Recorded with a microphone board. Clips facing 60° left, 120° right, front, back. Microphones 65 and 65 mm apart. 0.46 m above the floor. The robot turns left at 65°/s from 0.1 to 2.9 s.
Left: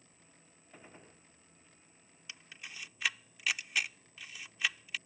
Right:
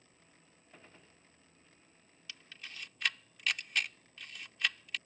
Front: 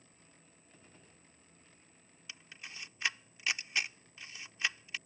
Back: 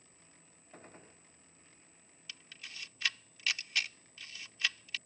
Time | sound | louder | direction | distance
0.7 | a gunshot | left 4 dB, back 9 dB | 145° left | ?
2.3 | a camera shutter | left 1 dB, front 1 dB | 25° left | ?